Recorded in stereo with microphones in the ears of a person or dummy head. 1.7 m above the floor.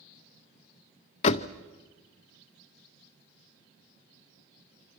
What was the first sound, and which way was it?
A door slam, 25° left (ahead or behind).